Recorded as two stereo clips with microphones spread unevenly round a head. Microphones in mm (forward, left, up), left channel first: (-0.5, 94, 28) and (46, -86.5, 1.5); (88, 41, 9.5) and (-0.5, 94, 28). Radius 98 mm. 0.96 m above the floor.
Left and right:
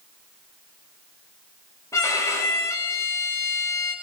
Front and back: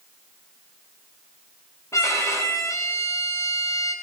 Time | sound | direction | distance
1.9 | a violin | 30° left | 6.5 m